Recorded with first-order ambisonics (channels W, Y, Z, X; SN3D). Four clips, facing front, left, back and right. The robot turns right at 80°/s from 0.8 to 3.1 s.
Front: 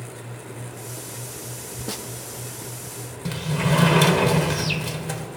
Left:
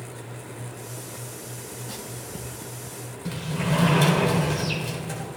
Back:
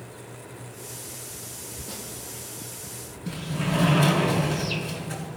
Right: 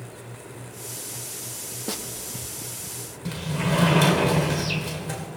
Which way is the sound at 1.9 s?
50° right.